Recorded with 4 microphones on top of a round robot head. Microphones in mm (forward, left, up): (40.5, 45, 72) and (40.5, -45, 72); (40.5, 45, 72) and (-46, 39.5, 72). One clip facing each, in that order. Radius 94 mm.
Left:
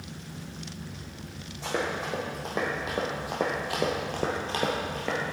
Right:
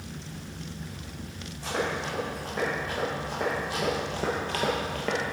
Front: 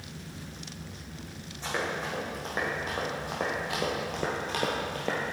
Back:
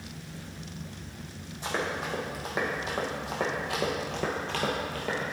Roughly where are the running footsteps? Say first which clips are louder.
Even, back 1 dB; left.